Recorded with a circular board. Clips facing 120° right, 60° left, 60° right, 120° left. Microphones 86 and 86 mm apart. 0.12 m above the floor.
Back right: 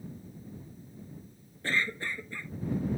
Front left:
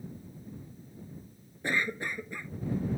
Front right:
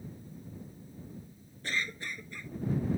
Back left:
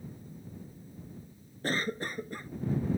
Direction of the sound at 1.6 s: 125° left.